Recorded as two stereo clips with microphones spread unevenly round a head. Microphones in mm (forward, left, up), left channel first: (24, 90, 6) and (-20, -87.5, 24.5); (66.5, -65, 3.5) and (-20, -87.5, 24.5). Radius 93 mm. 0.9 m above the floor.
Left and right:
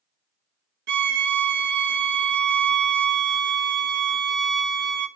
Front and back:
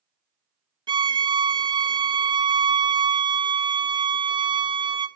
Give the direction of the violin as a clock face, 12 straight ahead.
4 o'clock.